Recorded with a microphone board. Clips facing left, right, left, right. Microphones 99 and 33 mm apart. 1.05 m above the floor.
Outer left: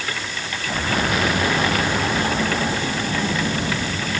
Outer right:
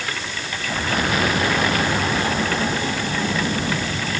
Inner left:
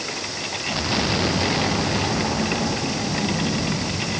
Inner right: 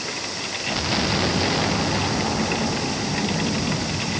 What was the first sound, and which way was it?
Only background noise.